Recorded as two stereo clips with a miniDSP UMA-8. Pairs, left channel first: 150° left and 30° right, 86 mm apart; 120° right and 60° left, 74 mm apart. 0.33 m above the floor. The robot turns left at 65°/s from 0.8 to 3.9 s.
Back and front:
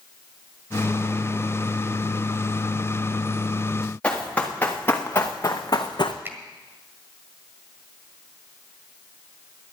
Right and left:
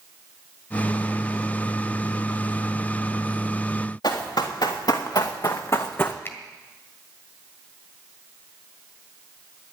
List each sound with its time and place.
4.0 s running footsteps: 135° right, 3.5 m; by 6.2 s 175° left, 1.3 m
6.2 s a finger snap: 80° right, 1.6 m